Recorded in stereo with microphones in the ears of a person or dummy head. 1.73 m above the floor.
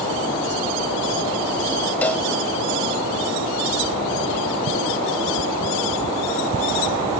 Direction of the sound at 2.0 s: 5° left (ahead or behind).